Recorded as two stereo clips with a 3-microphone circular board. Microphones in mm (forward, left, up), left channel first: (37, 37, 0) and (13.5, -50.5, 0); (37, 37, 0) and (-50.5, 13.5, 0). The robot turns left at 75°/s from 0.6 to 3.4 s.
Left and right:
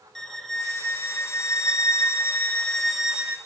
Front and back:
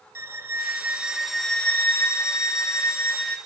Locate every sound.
0.1 s a violin: 160° left, 1.3 m; by 3.4 s 50° right, 1.3 m